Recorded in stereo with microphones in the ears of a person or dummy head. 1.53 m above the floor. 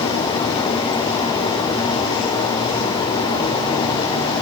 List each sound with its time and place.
Only background noise.